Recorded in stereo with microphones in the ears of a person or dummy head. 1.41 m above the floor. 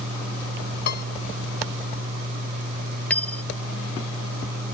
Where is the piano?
55° left (ahead or behind).